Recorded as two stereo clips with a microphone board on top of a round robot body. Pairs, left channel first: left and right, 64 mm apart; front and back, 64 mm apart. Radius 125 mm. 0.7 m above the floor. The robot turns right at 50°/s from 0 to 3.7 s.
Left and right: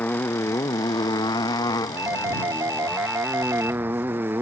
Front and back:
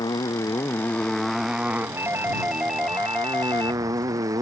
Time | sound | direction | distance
0.0 | a motorcycle | 25° left | ?
2.0 | a doorbell | 135° right | ?